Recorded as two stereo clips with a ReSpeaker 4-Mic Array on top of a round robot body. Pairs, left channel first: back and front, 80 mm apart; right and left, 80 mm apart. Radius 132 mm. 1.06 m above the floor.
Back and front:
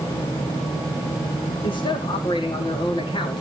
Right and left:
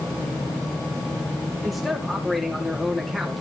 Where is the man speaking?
Straight behind, 3 m.